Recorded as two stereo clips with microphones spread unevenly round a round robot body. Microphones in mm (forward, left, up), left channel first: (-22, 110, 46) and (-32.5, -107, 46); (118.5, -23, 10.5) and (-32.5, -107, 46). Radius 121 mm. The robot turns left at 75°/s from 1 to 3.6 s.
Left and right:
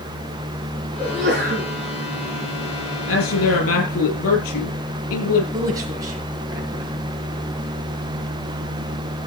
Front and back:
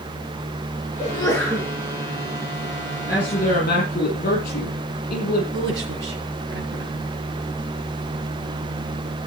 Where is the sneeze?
25° right, 5.5 m; by 1.7 s 80° right, 5.5 m.